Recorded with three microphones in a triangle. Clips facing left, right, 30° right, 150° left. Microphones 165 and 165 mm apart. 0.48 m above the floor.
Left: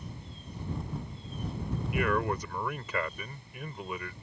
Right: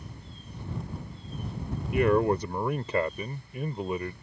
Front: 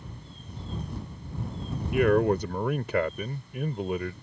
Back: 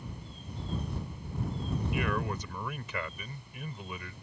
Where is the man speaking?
35° right.